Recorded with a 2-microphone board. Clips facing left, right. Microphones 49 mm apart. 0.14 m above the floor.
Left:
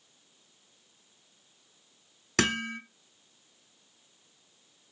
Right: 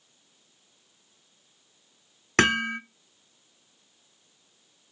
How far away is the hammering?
About 1.2 m.